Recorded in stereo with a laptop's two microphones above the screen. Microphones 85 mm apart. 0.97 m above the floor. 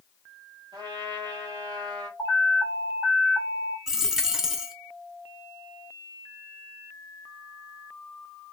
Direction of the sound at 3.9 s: 5° right (ahead or behind).